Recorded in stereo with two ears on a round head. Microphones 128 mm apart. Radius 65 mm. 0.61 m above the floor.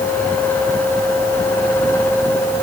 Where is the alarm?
No alarm in this recording.